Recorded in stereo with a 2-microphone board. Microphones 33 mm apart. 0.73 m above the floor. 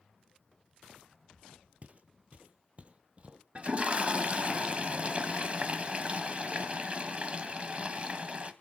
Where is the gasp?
I don't hear a gasp.